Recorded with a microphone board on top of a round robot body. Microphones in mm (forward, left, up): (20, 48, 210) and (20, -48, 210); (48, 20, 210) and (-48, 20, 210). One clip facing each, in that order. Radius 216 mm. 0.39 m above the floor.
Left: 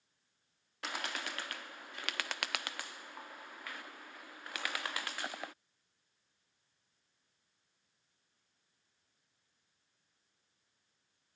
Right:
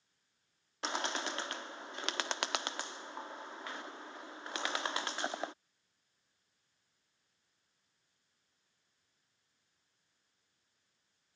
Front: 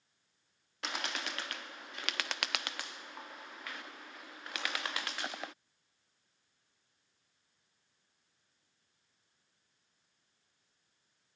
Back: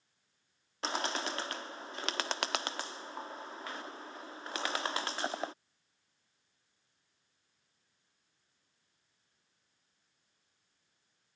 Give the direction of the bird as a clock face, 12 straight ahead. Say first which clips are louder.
Right 4 dB, back 5 dB; 5 o'clock.